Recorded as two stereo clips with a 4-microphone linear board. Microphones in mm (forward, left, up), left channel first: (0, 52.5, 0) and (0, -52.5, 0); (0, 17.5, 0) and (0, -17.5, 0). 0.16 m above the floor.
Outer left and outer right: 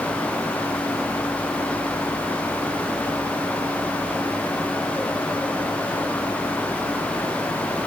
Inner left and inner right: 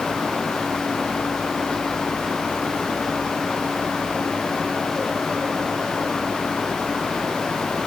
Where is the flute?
No flute in this recording.